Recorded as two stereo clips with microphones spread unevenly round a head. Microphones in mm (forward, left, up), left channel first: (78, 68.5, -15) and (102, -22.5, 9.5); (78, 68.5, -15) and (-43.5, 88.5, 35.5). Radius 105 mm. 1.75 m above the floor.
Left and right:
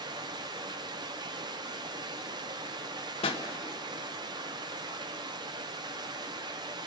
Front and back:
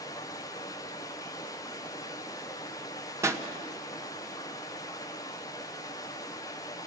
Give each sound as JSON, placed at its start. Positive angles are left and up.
{"t": 0.0, "sound": "running water", "azimuth_deg": -90, "distance_m": 0.8}
{"t": 3.2, "sound": "a pop", "azimuth_deg": 125, "distance_m": 1.4}